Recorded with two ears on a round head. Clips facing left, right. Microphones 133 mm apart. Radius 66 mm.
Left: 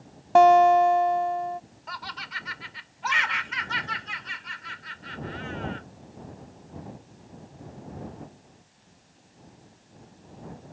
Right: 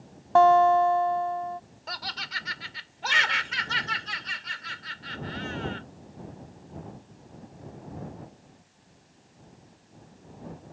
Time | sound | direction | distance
0.3 | a guitar | 20° left (ahead or behind) | ?
1.9 | laughter | 45° right (ahead or behind) | ?